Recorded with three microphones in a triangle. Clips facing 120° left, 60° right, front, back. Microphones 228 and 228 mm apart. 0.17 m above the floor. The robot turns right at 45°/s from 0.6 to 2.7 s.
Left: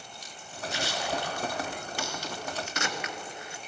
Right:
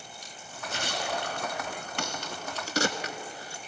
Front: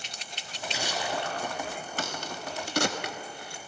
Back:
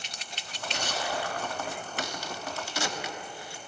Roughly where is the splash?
Right.